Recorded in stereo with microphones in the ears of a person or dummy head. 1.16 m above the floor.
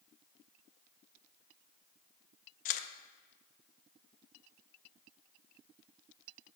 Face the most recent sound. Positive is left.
turn(degrees=45)  # may be behind; listen again after turning